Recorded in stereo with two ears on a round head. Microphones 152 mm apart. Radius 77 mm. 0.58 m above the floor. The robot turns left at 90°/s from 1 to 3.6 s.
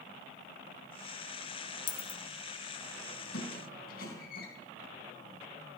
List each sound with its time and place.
1.9 s a dropped coin: 30° left (ahead or behind), 1.2 m; by 2.2 s centre (ahead or behind), 1.2 m
3.3 s a squeak: 75° left (ahead or behind), 4 m; by 4.5 s 55° left (ahead or behind), 4 m